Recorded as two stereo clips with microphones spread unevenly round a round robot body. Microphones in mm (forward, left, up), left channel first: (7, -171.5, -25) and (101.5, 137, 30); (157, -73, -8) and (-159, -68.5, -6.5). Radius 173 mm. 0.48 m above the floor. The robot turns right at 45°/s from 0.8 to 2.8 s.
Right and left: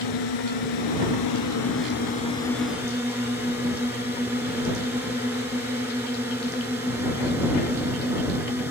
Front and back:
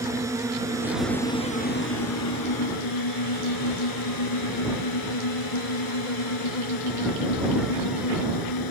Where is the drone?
100° right; by 8.7 s 10° right.